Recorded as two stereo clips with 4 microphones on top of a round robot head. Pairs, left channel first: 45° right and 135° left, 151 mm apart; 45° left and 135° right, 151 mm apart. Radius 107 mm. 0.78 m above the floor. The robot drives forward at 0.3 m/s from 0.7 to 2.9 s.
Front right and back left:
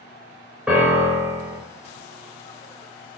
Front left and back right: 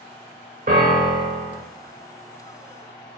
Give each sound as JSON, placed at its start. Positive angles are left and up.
{"t": 0.7, "sound": "a piano", "azimuth_deg": -145, "distance_m": 0.5}